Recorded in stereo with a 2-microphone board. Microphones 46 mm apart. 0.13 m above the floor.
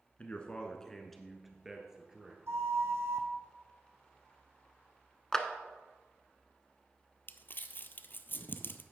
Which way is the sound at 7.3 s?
50° left (ahead or behind).